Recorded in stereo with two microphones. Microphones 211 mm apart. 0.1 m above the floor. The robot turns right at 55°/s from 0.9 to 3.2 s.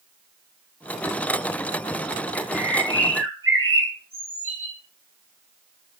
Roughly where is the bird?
Behind right.